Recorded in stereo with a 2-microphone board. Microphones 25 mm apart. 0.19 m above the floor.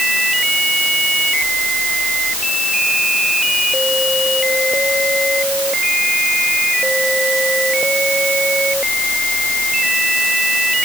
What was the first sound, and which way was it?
Only background noise.